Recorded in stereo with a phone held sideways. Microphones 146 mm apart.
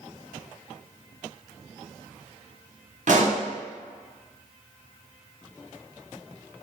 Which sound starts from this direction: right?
A pop, at 3.1 s.